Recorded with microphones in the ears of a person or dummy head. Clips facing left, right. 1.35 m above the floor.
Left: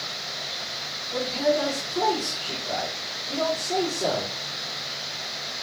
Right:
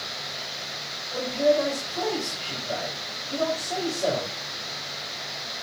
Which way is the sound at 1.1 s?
75° left (ahead or behind).